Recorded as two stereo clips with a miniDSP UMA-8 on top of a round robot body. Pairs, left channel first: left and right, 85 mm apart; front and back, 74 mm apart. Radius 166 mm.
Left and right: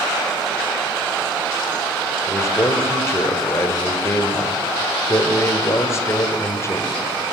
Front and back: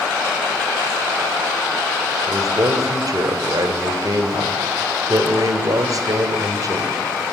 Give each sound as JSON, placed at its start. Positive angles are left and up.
{"t": 2.3, "sound": "a man speaking", "azimuth_deg": 145, "distance_m": 1.9}